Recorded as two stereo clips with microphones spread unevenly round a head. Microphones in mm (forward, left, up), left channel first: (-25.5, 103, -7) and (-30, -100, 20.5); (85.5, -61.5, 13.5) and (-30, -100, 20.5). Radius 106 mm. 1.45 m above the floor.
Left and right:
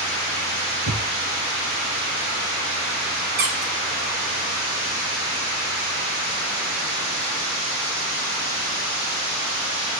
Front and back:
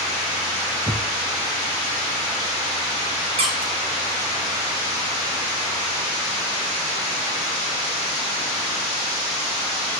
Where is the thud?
85° right, 7 m.